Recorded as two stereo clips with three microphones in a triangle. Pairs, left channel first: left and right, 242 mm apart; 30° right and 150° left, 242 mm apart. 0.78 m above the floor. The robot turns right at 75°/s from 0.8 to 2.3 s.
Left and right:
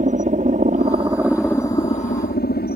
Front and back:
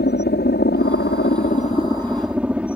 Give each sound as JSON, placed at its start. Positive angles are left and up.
{"t": 0.0, "sound": "a helicopter", "azimuth_deg": -45}